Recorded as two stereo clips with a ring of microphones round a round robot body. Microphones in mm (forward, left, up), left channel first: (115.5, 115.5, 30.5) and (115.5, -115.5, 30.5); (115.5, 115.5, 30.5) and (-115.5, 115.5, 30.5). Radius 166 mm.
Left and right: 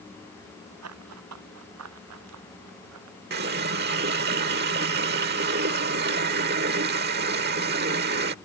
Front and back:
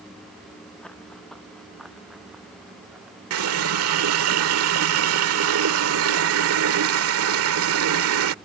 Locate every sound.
0.8 s running footsteps: 90° right; by 3.2 s 95° right
3.3 s a running tap: 145° right